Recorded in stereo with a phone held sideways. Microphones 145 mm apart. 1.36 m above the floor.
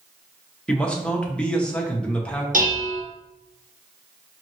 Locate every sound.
0.7 s a man speaking: 5° left (ahead or behind), 0.9 m
2.5 s dishes clattering: 65° right (ahead or behind), 1.0 m